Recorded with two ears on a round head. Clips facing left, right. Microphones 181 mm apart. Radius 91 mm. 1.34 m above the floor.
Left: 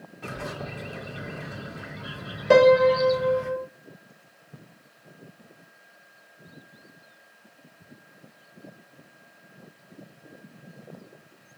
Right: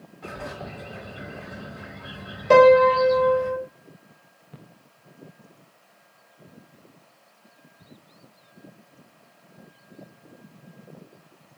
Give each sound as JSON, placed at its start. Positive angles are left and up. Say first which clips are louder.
{"t": 0.2, "sound": "a bird", "louder": "left 1 dB", "side_deg": 40, "distance_m": 1.2}
{"t": 2.5, "sound": "a piano", "louder": "right 2 dB", "side_deg": 5, "distance_m": 0.6}